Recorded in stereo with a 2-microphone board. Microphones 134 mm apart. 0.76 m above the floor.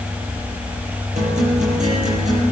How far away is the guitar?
About 8.5 m.